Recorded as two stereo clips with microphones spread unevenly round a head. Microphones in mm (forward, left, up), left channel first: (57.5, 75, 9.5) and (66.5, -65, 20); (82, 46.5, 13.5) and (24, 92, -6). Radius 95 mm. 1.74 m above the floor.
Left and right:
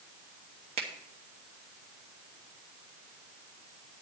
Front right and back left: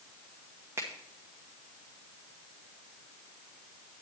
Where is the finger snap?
140° right, 1.0 m.